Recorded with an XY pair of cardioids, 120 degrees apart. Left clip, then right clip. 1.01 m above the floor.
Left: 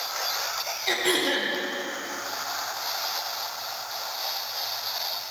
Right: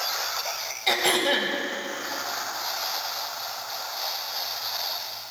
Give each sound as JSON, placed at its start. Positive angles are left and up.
{"t": 0.9, "sound": "throat clearing", "azimuth_deg": -45, "distance_m": 2.0}